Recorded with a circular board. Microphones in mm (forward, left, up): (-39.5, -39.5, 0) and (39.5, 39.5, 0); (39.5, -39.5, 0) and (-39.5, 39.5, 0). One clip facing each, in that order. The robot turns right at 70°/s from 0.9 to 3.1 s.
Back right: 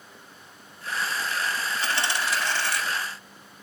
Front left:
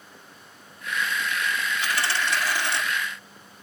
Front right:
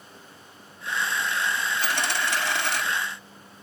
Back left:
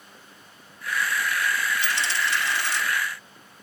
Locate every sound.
1.8 s a dropped coin: 85° right, 1.2 m; by 2.8 s 15° right, 1.2 m